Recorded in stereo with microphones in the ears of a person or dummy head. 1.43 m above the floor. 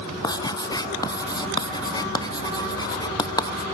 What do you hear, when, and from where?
0.2 s writing: 15° left (ahead or behind), 0.6 m